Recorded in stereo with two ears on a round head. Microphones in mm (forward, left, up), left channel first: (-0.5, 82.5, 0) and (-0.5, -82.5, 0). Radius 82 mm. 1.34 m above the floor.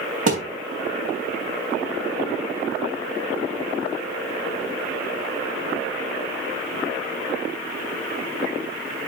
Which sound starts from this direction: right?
A thud, at 0.3 s.